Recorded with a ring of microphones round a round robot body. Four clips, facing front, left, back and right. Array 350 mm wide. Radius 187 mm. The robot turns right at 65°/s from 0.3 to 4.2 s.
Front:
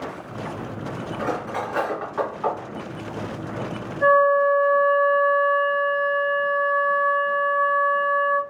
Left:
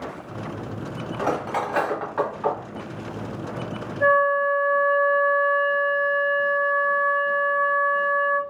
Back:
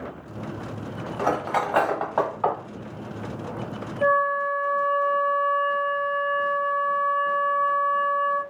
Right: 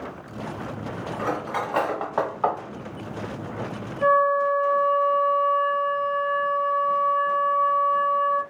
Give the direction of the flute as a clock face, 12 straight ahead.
1 o'clock.